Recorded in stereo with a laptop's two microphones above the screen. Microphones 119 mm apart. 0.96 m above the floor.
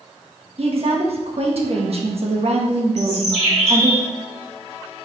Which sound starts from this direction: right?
A woman speaking, at 0.6 s.